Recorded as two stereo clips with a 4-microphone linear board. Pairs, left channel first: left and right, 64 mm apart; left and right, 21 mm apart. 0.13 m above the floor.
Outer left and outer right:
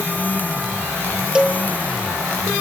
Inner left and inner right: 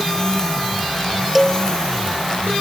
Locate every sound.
1.4 s a cowbell: 15° right (ahead or behind), 1.2 m